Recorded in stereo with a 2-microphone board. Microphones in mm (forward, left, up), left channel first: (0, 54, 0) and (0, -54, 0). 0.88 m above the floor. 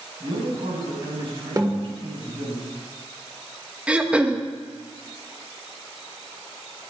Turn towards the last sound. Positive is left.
turn(degrees=-10)  # may be behind; listen again after turning